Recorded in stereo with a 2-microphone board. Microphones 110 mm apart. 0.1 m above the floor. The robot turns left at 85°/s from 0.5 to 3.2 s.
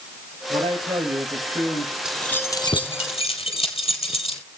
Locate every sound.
0.5 s a man speaking: 95° right, 7 m; by 1.9 s 140° left, 7 m
2.0 s keys jangling: 5° right (ahead or behind), 2 m; by 4.4 s 65° left (ahead or behind), 2 m